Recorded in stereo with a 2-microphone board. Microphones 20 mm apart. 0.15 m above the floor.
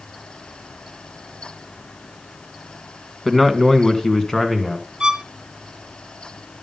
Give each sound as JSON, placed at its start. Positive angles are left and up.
{"t": 3.2, "sound": "a man speaking", "side_deg": 5, "distance_m": 1.6}
{"t": 5.0, "sound": "a violin", "side_deg": -40, "distance_m": 0.7}